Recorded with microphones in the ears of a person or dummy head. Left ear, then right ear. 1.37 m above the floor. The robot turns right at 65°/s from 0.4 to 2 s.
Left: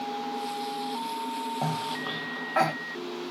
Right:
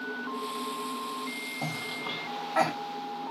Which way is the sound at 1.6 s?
30° left (ahead or behind).